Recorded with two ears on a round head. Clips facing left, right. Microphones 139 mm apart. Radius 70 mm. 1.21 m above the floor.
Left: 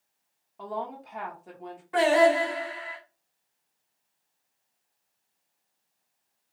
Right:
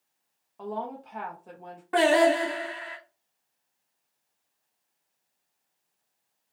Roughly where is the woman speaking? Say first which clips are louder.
Even; centre.